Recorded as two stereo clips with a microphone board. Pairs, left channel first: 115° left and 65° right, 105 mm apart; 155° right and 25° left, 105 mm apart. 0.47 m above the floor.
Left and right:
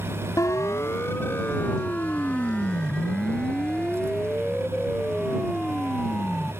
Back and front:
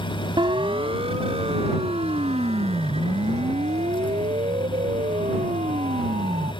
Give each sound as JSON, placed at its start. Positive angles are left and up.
{"t": 0.4, "sound": "a siren", "azimuth_deg": 55}